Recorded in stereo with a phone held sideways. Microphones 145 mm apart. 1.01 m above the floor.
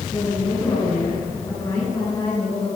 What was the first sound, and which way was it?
A woman speaking, 30° left (ahead or behind).